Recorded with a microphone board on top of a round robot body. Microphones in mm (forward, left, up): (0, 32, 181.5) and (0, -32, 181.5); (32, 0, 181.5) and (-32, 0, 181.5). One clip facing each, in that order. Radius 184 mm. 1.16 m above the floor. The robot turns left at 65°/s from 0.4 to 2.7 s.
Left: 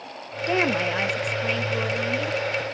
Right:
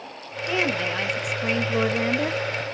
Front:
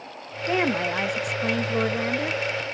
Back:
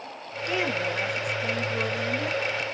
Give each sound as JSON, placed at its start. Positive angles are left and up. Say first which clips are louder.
{"t": 0.5, "sound": "a woman speaking", "louder": "left 2 dB, front 4 dB", "azimuth_deg": 50, "distance_m": 1.1}